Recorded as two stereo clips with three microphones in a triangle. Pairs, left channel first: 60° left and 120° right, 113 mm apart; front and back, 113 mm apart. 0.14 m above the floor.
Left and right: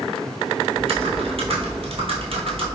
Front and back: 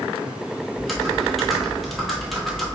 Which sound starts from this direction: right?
Typing on a keyboard, at 0.8 s.